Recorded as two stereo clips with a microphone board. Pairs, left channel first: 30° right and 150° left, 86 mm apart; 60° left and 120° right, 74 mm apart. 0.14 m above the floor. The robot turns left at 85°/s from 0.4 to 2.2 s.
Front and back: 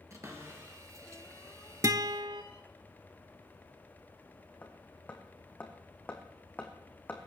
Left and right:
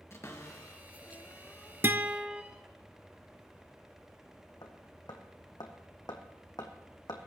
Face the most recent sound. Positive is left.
turn(degrees=40)